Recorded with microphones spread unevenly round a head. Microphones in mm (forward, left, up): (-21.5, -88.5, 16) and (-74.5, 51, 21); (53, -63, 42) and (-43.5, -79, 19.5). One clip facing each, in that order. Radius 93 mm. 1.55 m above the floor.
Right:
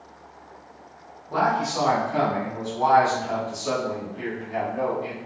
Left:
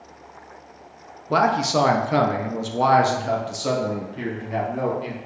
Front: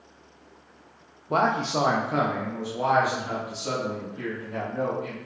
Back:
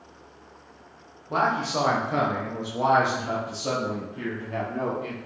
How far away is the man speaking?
About 0.7 m.